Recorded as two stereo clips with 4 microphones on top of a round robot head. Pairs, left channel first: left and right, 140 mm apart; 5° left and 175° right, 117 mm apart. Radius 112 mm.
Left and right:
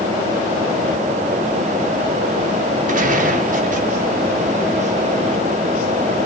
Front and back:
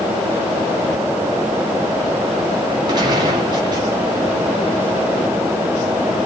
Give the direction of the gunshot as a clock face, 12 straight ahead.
4 o'clock.